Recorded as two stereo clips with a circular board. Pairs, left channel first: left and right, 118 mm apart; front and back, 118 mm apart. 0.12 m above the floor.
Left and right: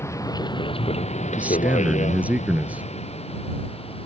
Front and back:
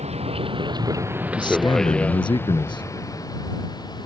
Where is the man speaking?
20° right.